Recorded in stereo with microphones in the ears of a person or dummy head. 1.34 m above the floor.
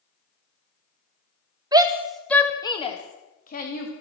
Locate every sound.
1.7 s a shout: 25° right (ahead or behind), 1.8 m; by 3.9 s 45° left (ahead or behind), 3.5 m